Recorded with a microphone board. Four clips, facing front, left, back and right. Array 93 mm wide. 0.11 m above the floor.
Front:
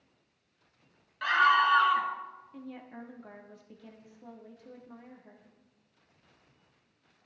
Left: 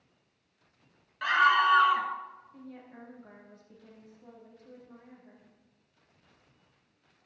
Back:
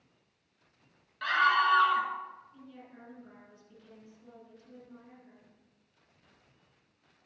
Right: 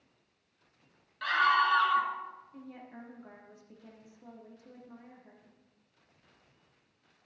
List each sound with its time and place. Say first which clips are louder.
1.2 s a scream: left 3 dB, front 2 dB; 55° left, 1.4 m
2.5 s a woman speaking: even, front 7 dB; 10° right, 3 m